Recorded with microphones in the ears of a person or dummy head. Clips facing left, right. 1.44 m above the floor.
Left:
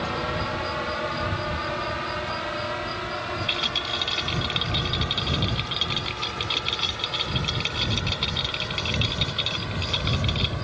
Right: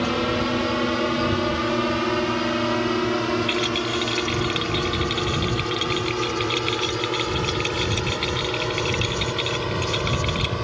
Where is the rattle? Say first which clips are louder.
Right 9 dB; 25° right (ahead or behind).